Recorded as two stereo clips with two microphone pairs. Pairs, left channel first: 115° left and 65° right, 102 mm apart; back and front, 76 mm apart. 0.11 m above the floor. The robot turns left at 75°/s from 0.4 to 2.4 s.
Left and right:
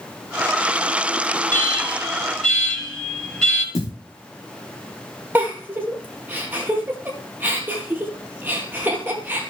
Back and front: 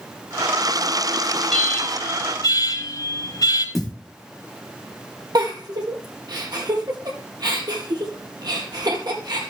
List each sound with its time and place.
1.5 s an alarm: 95° right, 4 m; by 3.6 s 165° right, 4 m
3.8 s a thud: 95° left, 3.5 m
5.3 s a giggle: 5° left, 2.5 m